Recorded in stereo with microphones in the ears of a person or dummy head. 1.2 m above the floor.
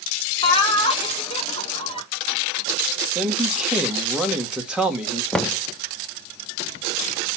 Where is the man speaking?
Centre (ahead or behind), 1.3 m.